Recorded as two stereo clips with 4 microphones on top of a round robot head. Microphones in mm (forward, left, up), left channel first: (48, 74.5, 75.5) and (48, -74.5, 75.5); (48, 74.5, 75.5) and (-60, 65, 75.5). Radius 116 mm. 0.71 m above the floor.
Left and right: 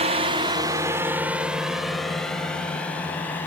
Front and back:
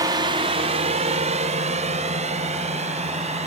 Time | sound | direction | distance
0.0 | a drone | 125° right | ?